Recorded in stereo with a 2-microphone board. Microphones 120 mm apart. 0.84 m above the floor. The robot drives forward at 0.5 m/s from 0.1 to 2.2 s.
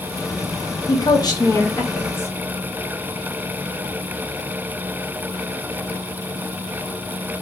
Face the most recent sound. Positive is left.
turn(degrees=20)  # may be behind; listen again after turning